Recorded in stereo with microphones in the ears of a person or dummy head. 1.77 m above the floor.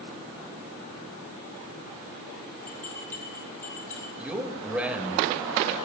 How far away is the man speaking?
About 3 m.